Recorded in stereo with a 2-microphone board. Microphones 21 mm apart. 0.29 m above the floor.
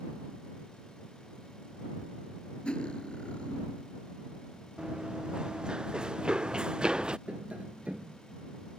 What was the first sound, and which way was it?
Cutlery clinking, 55° left (ahead or behind).